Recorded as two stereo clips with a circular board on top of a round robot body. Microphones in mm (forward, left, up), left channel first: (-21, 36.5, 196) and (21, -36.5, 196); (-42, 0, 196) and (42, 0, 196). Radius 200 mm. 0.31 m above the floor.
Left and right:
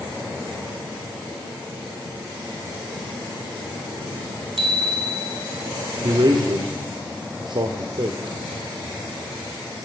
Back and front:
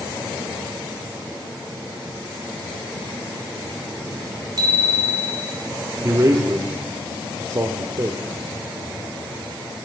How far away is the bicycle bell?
About 3 m.